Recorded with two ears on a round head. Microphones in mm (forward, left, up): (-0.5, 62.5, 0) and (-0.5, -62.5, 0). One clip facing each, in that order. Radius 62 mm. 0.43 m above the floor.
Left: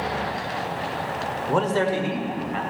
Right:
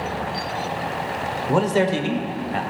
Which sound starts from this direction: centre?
A man speaking, at 1.5 s.